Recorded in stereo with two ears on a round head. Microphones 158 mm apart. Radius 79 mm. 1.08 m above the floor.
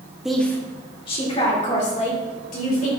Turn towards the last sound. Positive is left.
turn(degrees=50)  # may be behind; listen again after turning